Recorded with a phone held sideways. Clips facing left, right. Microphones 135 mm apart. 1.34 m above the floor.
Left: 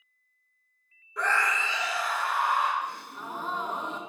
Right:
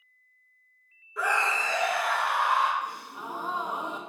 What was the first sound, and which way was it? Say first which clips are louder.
A scream: even; centre (ahead or behind).